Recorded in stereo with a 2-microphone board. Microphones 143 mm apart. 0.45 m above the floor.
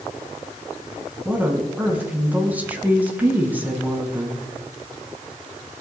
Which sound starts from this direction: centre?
A woman speaking, at 1.2 s.